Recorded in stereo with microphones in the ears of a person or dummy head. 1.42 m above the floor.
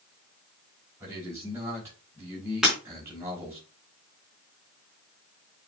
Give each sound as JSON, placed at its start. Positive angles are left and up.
{"t": 1.0, "sound": "a man speaking", "side_deg": -15, "distance_m": 4.5}
{"t": 2.6, "sound": "breaking glass", "side_deg": -5, "distance_m": 4.5}